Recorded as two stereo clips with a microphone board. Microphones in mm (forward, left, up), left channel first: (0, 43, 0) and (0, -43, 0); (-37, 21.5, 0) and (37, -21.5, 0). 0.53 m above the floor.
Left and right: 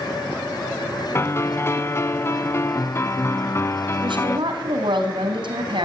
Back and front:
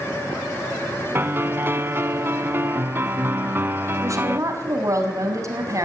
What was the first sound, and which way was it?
A piano, 35° left.